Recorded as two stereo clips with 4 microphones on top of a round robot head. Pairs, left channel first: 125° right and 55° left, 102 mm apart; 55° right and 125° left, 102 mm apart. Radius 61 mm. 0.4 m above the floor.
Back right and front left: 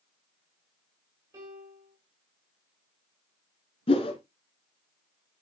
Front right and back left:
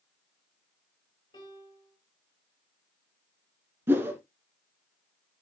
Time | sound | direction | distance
1.3 | a piano | 5° right | 6 m
3.9 | a whoosh | 165° right | 1.9 m